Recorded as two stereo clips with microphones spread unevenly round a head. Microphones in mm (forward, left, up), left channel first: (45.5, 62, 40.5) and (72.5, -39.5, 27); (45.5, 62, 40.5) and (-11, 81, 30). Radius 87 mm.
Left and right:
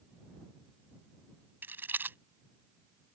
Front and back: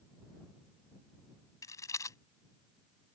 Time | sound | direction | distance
1.6 | a rattle | straight ahead | ?